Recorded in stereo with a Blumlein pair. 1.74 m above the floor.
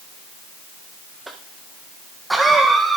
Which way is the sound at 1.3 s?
5° right.